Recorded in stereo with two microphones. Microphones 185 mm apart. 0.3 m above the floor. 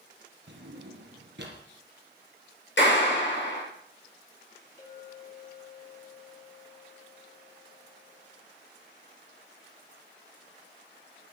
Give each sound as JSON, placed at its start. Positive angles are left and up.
{"t": 0.5, "sound": "a drawer", "side_deg": -80, "distance_m": 2.5}
{"t": 2.8, "sound": "a clap", "side_deg": 75, "distance_m": 5.0}
{"t": 4.8, "sound": "a clink", "side_deg": 40, "distance_m": 6.0}